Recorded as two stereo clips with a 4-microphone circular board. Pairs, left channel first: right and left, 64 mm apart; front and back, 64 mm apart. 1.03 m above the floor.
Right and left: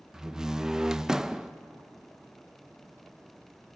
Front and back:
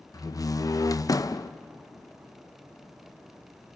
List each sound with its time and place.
0.1 s a door slam: 10° left, 0.5 m